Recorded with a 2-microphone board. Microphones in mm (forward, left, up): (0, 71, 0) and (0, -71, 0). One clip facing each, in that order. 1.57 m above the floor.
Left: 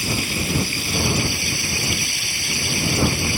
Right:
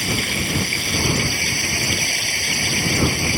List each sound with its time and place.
0.0 s running water: 65° right (ahead or behind)